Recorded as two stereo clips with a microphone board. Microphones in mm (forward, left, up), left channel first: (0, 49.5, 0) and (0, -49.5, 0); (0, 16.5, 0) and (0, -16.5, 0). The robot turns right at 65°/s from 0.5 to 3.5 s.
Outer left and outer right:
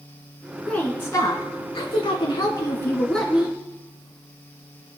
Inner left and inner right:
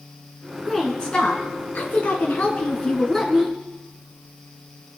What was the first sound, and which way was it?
A woman speaking, 10° left.